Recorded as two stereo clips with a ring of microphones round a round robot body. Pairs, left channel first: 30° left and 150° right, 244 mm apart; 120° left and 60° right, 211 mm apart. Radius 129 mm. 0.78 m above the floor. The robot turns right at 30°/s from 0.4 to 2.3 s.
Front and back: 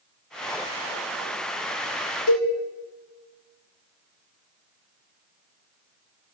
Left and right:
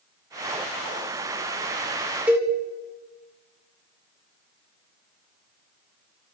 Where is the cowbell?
25° left, 2.5 m.